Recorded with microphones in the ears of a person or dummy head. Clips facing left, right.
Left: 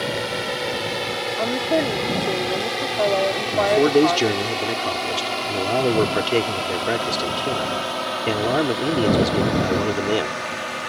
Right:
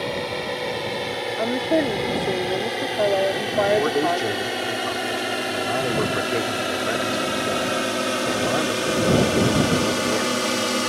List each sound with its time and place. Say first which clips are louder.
0.0 s a drone: left 1 dB; 5° left (ahead or behind); by 10.9 s 50° right (ahead or behind)
1.4 s a woman speaking: right 1 dB; 5° right (ahead or behind)
3.5 s a man speaking: left 5 dB; 45° left (ahead or behind)